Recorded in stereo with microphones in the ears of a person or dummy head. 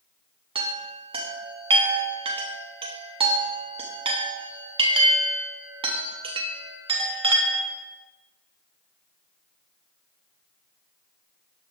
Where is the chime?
30° right (ahead or behind), 0.7 m.